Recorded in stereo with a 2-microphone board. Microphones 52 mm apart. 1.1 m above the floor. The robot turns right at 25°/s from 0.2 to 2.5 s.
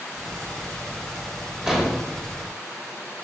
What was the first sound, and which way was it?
An explosion, 10° right (ahead or behind).